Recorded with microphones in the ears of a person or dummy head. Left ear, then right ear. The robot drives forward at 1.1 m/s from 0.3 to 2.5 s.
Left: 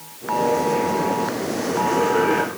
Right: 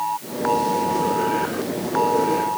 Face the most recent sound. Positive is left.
No sound to turn to.